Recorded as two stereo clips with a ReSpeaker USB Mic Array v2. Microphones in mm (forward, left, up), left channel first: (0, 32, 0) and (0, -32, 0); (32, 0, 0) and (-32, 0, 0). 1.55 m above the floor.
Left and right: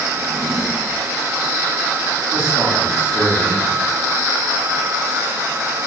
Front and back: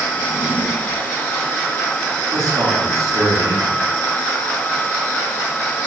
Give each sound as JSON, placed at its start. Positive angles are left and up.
{"t": 0.2, "sound": "a drawer", "azimuth_deg": 175, "distance_m": 0.8}
{"t": 2.3, "sound": "a man speaking", "azimuth_deg": -145, "distance_m": 2.5}